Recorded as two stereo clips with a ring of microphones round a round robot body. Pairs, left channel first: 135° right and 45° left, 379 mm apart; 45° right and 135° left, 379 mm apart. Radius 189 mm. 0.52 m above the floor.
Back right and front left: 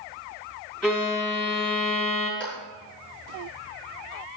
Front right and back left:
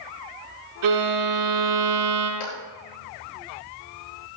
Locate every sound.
0.8 s a violin: 135° left, 5 m
2.4 s a clap: 50° right, 7.5 m